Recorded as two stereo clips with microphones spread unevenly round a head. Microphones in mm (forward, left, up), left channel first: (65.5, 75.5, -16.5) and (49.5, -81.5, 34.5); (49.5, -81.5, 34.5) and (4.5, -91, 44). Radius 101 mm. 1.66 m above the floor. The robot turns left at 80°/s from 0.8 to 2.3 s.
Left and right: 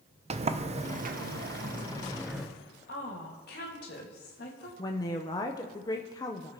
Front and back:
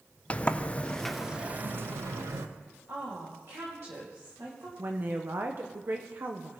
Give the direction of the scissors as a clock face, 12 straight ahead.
I don't hear scissors.